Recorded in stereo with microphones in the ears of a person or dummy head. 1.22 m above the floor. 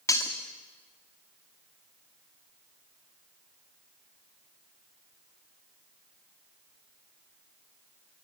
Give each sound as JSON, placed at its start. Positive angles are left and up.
{"t": 0.1, "sound": "breaking glass", "side_deg": 15, "distance_m": 1.6}